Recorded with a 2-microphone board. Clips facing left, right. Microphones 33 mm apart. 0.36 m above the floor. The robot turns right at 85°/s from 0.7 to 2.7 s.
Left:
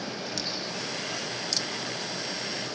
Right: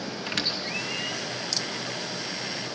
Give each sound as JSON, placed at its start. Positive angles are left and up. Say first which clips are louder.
{"t": 0.3, "sound": "a squeak", "louder": "right 4 dB", "side_deg": -55, "distance_m": 3.0}